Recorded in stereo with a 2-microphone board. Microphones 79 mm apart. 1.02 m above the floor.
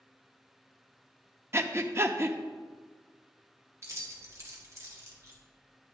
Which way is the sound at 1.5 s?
35° right (ahead or behind).